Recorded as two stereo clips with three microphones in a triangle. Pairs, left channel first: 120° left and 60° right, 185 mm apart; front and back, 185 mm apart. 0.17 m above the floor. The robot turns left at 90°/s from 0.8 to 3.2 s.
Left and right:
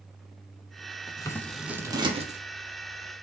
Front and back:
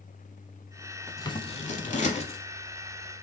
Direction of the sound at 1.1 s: 75° left.